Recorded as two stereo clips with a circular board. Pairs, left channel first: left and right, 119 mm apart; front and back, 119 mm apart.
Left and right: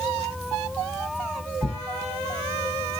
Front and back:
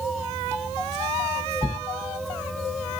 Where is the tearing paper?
80° right, 5.5 m.